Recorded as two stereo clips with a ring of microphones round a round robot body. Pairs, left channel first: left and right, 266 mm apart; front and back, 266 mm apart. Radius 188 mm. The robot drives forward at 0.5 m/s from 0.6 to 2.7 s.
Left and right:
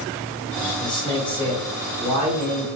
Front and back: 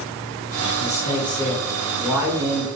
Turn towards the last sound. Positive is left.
turn(degrees=140)